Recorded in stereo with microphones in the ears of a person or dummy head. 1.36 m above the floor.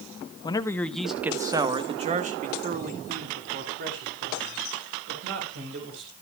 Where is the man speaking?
25° left (ahead or behind), 1.0 m; by 6.1 s 70° right (ahead or behind), 4.5 m.